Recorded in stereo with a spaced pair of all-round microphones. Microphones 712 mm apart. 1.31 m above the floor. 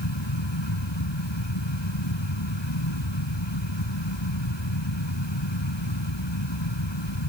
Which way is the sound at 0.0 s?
35° left (ahead or behind).